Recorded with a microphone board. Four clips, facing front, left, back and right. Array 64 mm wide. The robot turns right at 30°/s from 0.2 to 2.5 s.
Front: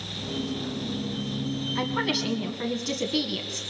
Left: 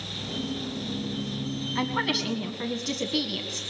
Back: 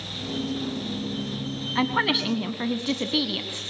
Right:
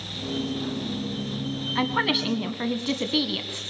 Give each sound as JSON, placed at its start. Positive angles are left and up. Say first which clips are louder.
{"t": 1.8, "sound": "a woman speaking", "louder": "right 3 dB, back 5 dB", "azimuth_deg": -150, "distance_m": 1.7}